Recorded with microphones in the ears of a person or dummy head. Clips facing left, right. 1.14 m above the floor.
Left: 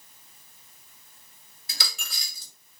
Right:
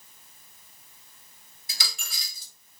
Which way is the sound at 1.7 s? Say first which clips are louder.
Left 2 dB; 50° left (ahead or behind).